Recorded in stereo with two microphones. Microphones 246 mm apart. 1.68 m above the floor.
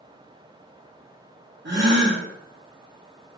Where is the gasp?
45° right (ahead or behind), 0.6 m.